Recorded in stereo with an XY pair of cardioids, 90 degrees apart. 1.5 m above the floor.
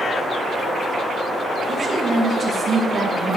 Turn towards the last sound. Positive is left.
turn(degrees=-35)